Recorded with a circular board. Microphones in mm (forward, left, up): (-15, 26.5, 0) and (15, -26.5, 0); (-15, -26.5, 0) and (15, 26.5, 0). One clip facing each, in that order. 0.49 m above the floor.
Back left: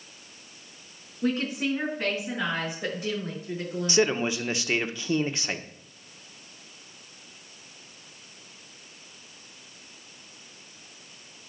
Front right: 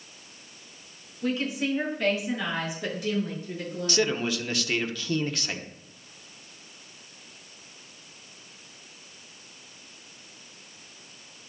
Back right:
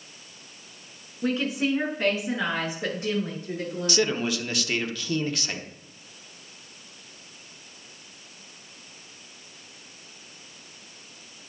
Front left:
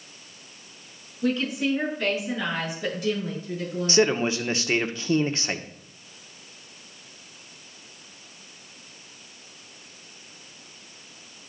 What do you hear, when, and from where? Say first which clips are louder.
1.2 s a woman speaking: back left 1 dB, front left 1 dB; 175° left, 6 m; by 4.2 s 170° right, 9 m
3.9 s a man speaking: back left 2 dB, front left 4 dB; 75° left, 1.0 m